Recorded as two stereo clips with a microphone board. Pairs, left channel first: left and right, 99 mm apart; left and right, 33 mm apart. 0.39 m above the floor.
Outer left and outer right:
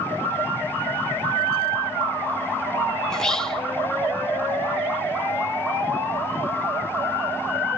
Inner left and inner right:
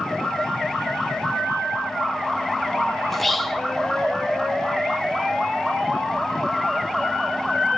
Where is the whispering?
5° left (ahead or behind), 1.0 m.